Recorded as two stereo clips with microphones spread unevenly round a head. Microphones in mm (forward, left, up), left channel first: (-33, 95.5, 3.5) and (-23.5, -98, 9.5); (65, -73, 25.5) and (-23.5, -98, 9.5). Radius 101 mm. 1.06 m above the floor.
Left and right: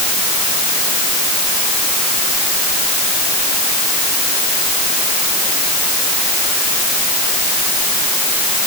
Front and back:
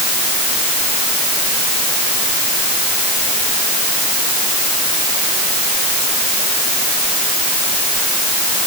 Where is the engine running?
No engine running in this recording.